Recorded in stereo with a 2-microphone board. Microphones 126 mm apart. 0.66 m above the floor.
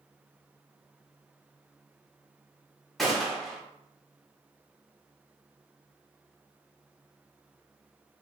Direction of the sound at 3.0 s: Centre (ahead or behind).